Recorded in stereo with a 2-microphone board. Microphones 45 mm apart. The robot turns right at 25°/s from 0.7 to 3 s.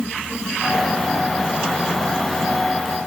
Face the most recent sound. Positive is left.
No sound to turn to.